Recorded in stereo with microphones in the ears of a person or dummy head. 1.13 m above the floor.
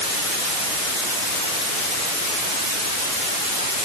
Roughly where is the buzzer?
No buzzer in this recording.